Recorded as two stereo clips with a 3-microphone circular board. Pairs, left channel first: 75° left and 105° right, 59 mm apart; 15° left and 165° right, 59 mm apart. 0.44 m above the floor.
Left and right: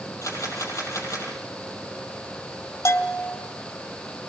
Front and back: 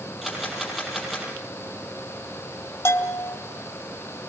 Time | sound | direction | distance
0.2 | a camera shutter | 110° left | 7 m
2.9 | a bell | 50° left | 2 m